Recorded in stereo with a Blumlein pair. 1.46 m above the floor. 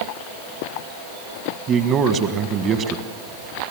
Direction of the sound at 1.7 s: 30° right.